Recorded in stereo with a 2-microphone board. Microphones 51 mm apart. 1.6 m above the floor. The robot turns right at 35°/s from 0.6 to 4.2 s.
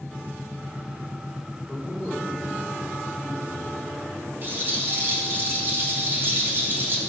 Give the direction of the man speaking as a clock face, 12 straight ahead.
11 o'clock.